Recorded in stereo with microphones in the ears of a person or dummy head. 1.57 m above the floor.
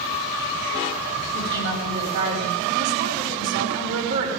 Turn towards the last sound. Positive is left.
turn(degrees=-60)  # may be behind; listen again after turning